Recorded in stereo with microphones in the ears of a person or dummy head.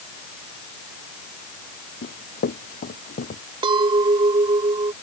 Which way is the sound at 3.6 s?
25° right (ahead or behind).